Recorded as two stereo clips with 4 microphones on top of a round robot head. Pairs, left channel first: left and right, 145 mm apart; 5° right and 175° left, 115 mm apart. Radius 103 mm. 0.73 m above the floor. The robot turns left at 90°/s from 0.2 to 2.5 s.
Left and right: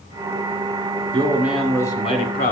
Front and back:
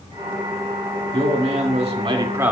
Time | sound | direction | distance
1.1 | a man speaking | 140° right | 2 m